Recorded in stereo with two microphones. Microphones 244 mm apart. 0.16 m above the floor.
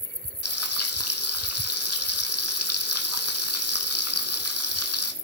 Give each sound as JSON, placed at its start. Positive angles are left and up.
{"t": 0.4, "sound": "frying", "side_deg": 80, "distance_m": 1.1}